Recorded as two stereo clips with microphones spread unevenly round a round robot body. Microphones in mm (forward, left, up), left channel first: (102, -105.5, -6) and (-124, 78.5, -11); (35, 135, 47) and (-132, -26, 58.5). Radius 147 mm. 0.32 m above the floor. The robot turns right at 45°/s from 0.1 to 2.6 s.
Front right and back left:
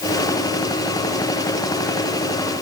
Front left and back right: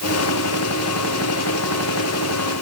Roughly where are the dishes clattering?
No dishes clattering in this recording.